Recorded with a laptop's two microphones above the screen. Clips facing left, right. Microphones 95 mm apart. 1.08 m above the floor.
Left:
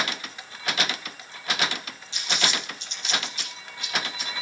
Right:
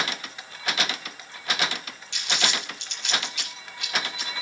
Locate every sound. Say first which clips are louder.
2.1 s crumpling: even; 70° right (ahead or behind), 6 m